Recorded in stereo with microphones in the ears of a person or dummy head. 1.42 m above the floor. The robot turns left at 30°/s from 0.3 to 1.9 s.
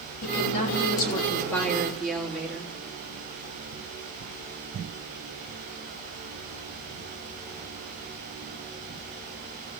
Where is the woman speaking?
50° left, 3.5 m; by 2.7 s 5° left, 3.5 m.